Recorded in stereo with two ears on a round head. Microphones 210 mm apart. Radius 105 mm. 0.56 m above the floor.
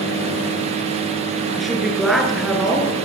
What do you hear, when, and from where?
1.6 s a woman speaking: centre (ahead or behind), 6.5 m